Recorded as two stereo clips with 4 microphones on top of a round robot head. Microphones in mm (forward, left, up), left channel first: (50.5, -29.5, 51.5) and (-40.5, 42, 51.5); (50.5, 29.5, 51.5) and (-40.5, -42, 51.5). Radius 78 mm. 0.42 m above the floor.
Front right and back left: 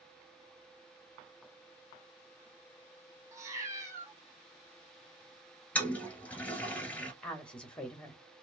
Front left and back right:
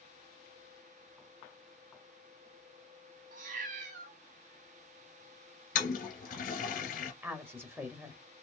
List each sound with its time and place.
3.3 s a cat meowing: 150° right, 1.2 m
5.8 s a toilet flushing: 40° left, 1.1 m
7.2 s a woman speaking: 105° right, 1.3 m